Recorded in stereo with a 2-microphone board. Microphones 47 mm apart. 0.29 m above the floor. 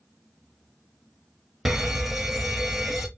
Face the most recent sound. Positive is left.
turn(degrees=-5)  # may be behind; listen again after turning